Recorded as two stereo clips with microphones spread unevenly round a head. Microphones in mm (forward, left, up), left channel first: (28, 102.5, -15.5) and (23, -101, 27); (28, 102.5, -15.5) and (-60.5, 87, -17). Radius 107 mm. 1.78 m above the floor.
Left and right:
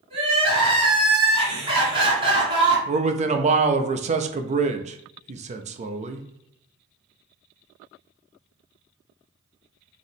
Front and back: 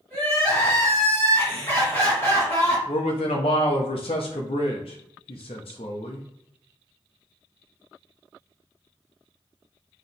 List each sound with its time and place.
0.1 s crying: 55° right, 2.5 m
2.9 s a man speaking: 35° right, 0.5 m